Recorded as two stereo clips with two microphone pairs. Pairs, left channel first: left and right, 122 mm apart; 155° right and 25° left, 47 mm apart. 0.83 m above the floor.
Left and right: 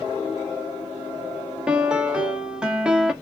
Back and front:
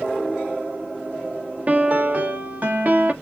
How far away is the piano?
About 0.8 m.